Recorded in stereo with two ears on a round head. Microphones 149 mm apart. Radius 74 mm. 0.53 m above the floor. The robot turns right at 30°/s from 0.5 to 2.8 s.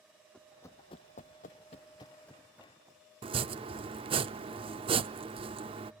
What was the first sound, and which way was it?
Running footsteps, 5° left (ahead or behind).